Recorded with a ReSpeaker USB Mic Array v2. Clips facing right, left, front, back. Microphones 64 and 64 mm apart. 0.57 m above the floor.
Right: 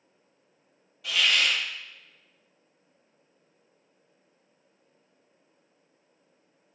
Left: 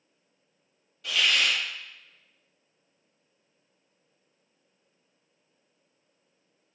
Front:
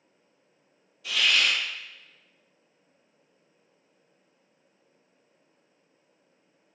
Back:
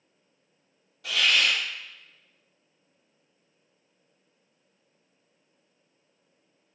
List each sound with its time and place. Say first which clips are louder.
1.0 s a hiss: even, back 1 dB; 175° right, 1.4 m